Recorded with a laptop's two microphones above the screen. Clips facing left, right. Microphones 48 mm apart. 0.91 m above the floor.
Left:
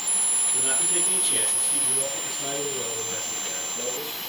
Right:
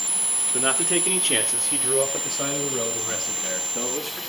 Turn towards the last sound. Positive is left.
turn(degrees=-80)